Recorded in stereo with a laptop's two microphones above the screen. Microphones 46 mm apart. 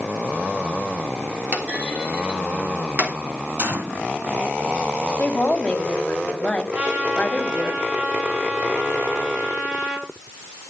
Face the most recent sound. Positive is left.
turn(degrees=-35)  # may be behind; listen again after turning